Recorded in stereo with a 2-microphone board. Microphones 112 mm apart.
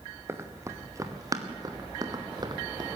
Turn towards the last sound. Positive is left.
turn(degrees=-40)  # may be behind; listen again after turning